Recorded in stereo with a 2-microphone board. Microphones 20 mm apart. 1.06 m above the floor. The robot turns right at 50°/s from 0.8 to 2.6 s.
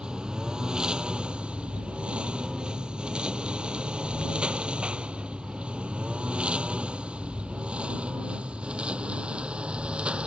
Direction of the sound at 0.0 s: 50° right (ahead or behind).